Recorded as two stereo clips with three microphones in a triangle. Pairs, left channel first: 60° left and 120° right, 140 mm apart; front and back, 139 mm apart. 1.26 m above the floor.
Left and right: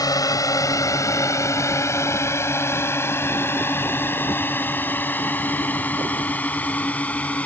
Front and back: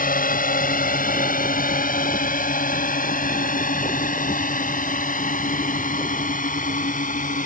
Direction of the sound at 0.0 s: 5° right.